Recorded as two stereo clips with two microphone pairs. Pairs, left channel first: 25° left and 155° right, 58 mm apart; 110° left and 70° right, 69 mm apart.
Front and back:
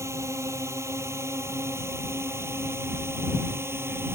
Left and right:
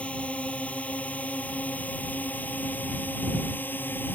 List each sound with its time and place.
0.0 s a drone: straight behind; by 4.2 s 165° left